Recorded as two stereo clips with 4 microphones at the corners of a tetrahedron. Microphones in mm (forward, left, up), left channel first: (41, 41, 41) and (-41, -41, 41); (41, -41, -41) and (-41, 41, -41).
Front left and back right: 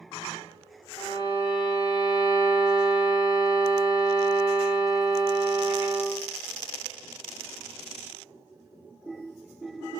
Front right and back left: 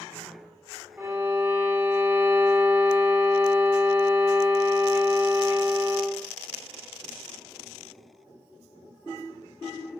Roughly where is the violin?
Left.